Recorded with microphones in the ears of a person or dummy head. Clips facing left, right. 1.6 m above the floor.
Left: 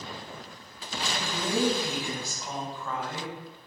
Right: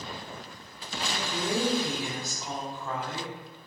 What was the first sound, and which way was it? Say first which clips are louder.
A woman speaking: even; 20° right (ahead or behind).